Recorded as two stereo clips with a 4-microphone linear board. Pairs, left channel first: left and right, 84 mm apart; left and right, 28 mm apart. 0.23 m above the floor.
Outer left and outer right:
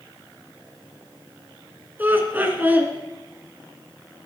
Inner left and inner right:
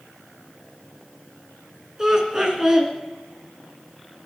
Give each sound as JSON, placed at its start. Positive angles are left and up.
{"t": 2.0, "sound": "laughter", "side_deg": -20, "distance_m": 2.5}